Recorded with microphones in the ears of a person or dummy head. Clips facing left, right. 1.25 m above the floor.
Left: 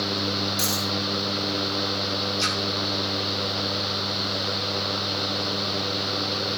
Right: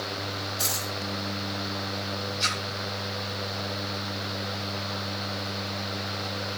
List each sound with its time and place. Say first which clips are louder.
0.6 s a dropped coin: left 6 dB; 70° left (ahead or behind), 4.5 m
2.4 s a splash: left 6 dB; 55° left (ahead or behind), 4.5 m